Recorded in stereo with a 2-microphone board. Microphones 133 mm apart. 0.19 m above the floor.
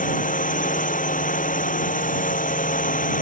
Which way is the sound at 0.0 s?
85° left.